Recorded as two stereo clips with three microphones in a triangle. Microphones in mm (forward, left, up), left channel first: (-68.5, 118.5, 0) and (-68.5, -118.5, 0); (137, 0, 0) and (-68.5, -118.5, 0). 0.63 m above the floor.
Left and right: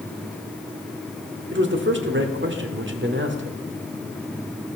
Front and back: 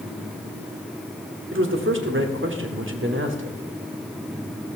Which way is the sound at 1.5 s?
125° right.